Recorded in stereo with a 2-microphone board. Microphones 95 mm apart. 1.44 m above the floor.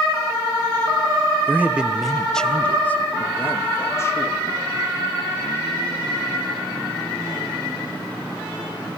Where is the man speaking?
20° right (ahead or behind), 1.1 m; by 4.5 s 35° left (ahead or behind), 3 m.